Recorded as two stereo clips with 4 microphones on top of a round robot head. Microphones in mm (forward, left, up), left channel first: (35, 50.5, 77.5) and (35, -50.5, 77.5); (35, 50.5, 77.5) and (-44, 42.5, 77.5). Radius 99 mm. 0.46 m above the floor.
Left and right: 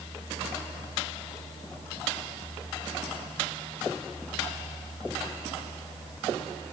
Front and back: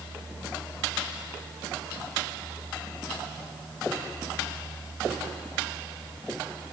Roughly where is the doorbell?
No doorbell in this recording.